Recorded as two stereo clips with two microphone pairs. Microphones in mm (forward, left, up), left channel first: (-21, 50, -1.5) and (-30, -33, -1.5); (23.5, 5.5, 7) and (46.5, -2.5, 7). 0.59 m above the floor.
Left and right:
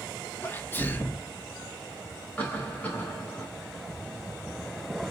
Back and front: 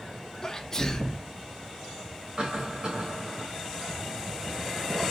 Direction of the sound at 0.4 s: 115° left.